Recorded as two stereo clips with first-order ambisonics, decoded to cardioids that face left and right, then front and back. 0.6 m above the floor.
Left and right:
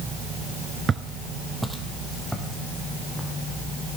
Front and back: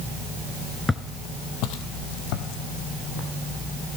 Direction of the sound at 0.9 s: 70° right.